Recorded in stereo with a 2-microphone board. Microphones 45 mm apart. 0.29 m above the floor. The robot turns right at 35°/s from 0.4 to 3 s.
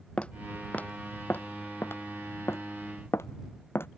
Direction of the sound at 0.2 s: 25° left (ahead or behind).